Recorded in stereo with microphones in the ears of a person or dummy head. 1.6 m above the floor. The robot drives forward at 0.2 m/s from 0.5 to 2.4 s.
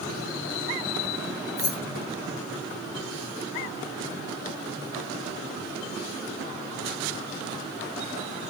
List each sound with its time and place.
1.6 s keys jangling: 35° left (ahead or behind), 0.9 m